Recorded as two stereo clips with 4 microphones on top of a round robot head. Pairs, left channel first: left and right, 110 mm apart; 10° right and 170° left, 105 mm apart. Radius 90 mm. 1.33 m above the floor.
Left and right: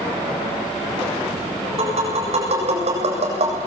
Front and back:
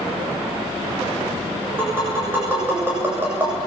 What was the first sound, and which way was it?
Tapping, 115° right.